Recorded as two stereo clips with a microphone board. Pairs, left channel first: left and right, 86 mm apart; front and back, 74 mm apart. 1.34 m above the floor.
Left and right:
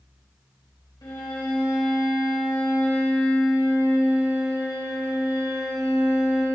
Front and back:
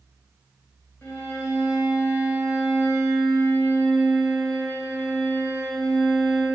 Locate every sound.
1.0 s a violin: 55° left, 3 m